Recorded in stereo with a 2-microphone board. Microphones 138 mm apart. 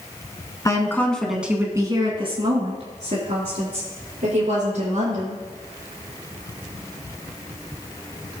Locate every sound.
0.7 s a woman speaking: 25° left (ahead or behind), 1.7 m; by 5.4 s 70° right (ahead or behind), 5 m